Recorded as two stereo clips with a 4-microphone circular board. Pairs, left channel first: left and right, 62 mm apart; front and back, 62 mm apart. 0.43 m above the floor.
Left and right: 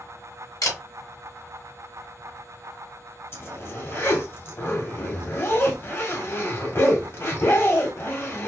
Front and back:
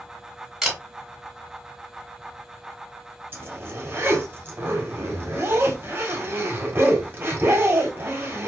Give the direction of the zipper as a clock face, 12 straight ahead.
8 o'clock.